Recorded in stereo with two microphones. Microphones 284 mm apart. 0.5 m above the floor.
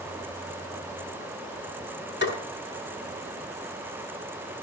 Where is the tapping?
40° left (ahead or behind), 7.5 m.